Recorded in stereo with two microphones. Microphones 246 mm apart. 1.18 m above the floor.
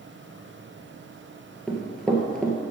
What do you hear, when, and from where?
1.7 s running footsteps: 5° left (ahead or behind), 1.5 m